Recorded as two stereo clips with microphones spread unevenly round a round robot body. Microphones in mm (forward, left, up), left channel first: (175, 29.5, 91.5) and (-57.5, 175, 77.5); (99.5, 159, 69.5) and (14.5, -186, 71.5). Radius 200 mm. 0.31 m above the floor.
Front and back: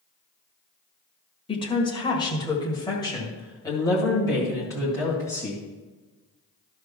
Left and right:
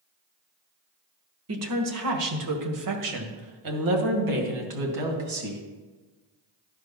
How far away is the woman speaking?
About 1.5 m.